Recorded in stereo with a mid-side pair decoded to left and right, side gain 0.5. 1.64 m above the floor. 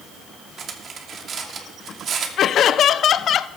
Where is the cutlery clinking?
45° right, 2.5 m.